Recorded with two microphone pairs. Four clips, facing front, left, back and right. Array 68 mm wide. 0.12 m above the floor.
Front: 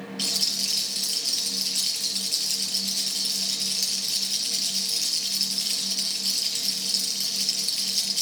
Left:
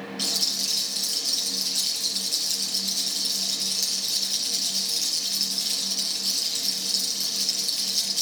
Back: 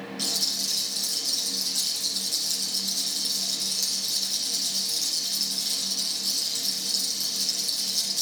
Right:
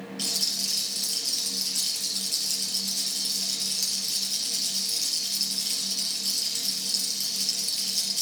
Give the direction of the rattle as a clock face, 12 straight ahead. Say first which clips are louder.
Left 3 dB, front 1 dB; 12 o'clock.